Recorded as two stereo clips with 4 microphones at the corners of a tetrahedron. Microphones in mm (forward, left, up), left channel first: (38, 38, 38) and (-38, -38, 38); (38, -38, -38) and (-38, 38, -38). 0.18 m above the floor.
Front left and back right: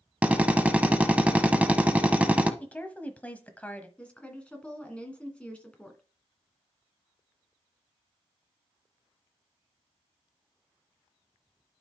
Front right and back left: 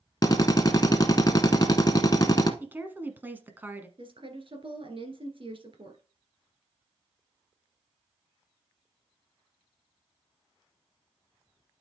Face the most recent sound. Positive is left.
turn(degrees=125)